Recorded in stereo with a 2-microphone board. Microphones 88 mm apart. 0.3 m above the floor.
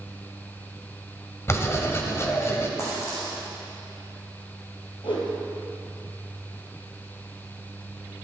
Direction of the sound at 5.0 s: 70° left (ahead or behind).